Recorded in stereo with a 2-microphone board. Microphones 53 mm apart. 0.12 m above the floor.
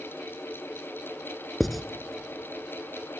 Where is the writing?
Centre (ahead or behind), 0.6 m.